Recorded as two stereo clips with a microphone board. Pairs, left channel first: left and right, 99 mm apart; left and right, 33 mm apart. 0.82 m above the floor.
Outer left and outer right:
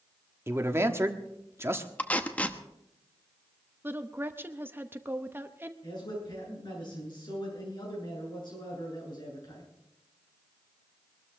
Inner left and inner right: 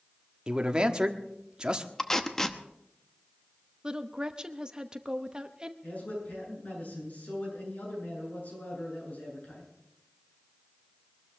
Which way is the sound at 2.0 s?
15° left (ahead or behind).